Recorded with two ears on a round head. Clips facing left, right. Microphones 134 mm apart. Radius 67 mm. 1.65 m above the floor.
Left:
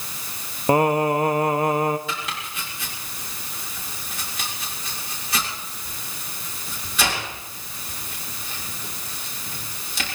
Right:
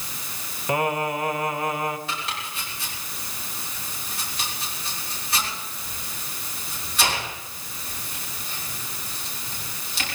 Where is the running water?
I don't hear running water.